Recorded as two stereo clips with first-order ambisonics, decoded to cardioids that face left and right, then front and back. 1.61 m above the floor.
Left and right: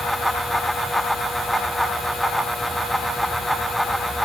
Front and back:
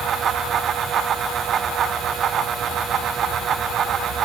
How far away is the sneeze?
I don't hear a sneeze.